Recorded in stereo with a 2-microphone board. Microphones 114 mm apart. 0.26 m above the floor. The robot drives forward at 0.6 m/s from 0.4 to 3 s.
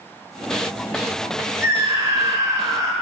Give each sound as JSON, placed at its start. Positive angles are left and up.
{"t": 1.6, "sound": "a scream", "side_deg": -25, "distance_m": 1.5}